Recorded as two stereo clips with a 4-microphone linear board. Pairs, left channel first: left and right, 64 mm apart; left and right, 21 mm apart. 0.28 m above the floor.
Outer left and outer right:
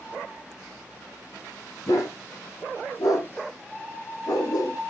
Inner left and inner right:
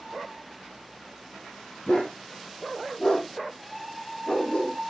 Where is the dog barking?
55° left (ahead or behind), 4.5 m; by 4.8 s 80° left, 4.5 m.